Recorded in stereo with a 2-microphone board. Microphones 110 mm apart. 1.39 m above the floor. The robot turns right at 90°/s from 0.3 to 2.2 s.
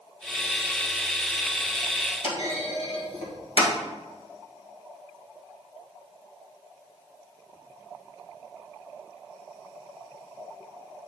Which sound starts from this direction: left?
A clunk, at 2.2 s.